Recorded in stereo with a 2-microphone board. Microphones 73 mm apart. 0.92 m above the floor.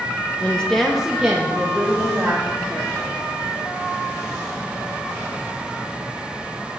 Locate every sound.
0.4 s a woman speaking: 20° left (ahead or behind), 0.6 m; by 3.1 s 40° right (ahead or behind), 1.6 m